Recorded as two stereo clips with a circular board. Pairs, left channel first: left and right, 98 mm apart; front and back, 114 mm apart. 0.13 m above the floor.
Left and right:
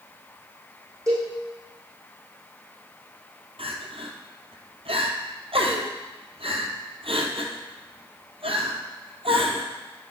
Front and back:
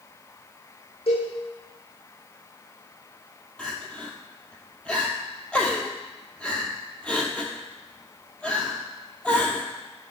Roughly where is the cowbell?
Ahead right.